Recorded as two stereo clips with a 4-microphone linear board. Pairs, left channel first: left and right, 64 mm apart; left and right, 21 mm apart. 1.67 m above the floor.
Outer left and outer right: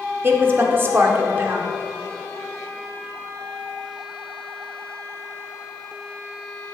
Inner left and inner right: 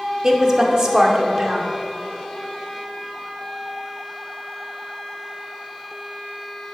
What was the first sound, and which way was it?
A woman speaking, 35° right (ahead or behind).